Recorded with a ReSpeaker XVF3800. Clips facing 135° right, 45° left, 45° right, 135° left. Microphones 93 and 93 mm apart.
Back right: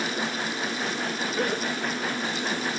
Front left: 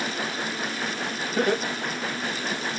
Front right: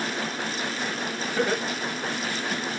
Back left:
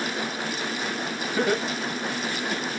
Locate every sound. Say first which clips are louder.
1.4 s laughter: front left 5 dB, back left 2 dB; 40° left, 2 m; by 2.6 s 15° right, 1.6 m